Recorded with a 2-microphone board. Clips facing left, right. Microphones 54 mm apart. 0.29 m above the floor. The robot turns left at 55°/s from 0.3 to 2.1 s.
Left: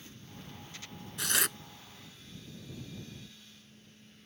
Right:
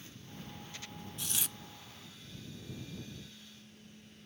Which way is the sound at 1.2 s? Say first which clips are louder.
Left 11 dB; 85° left.